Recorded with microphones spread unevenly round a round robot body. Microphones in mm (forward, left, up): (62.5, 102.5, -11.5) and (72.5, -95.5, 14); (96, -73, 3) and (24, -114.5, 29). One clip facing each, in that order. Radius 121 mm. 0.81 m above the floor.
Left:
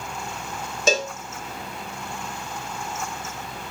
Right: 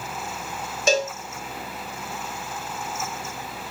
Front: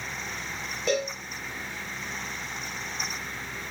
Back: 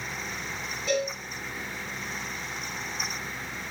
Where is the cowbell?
105° left, 0.6 m.